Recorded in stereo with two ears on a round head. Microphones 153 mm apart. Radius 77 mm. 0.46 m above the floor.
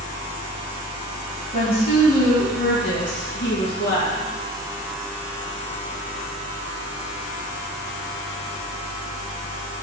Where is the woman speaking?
55° left (ahead or behind), 2.5 m; by 4.3 s 70° left (ahead or behind), 4.5 m.